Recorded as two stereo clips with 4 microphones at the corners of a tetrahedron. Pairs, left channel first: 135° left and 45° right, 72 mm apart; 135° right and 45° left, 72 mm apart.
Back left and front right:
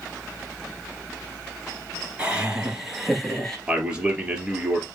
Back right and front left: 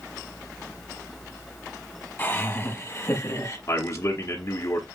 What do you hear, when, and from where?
2.2 s laughter: 105° right, 1.6 m; by 3.6 s 145° right, 2.0 m
3.7 s a man speaking: 115° right, 1.9 m